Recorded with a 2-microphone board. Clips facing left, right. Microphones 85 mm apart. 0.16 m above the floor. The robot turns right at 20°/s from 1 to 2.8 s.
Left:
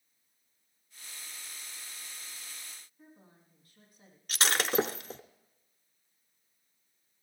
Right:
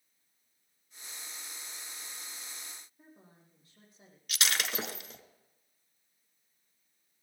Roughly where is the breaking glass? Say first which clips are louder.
Left 5 dB; left.